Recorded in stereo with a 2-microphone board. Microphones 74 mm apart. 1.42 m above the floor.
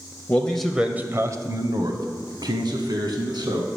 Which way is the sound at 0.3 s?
25° left (ahead or behind).